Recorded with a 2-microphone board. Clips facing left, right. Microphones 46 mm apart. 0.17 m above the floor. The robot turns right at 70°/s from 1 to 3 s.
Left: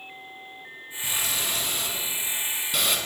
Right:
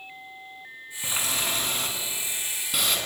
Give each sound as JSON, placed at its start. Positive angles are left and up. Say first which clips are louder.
{"t": 1.0, "sound": "a running tap", "louder": "right 1 dB", "azimuth_deg": -130, "distance_m": 1.0}